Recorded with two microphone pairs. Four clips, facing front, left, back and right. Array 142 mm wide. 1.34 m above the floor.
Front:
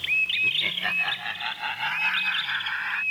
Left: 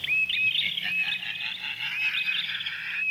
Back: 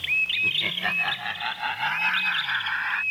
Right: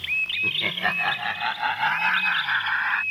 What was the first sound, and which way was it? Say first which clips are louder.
Laughter: right 7 dB, back 1 dB; 95° right.